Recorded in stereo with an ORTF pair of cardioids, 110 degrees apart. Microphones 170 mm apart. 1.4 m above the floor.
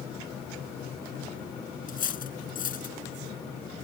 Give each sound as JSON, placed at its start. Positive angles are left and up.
{"t": 1.9, "sound": "cutlery clinking", "azimuth_deg": 50}